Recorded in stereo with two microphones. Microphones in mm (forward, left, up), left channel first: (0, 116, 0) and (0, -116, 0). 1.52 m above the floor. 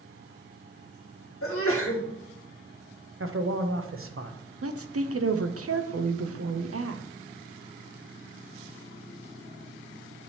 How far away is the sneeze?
About 1.9 m.